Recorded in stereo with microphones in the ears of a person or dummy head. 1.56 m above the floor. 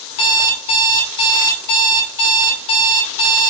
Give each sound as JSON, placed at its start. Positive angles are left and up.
{"t": 0.1, "sound": "an alarm clock", "side_deg": 65, "distance_m": 2.5}